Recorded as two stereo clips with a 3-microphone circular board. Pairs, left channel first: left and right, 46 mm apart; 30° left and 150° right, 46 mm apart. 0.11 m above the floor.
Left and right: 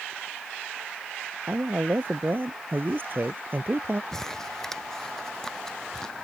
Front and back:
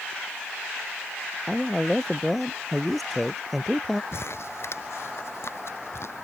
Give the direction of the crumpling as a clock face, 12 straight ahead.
12 o'clock.